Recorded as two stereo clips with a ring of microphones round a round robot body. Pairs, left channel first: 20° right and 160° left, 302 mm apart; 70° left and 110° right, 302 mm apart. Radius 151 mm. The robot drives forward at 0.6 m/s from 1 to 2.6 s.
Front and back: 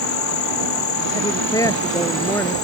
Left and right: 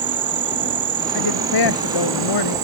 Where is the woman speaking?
55° left; by 2.5 s 60° left.